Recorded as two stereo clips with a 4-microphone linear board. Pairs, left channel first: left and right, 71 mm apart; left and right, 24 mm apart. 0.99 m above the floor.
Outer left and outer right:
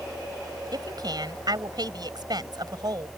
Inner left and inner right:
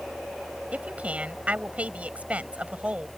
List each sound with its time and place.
0.7 s a woman speaking: 75° right (ahead or behind)